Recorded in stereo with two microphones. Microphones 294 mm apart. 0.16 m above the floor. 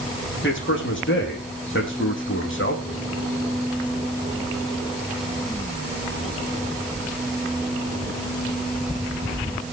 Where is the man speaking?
40° left (ahead or behind), 7 m.